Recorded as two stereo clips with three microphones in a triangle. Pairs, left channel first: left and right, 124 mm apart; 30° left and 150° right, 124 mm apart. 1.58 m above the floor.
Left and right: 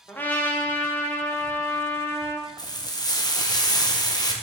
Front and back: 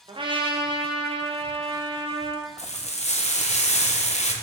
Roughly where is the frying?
Ahead left.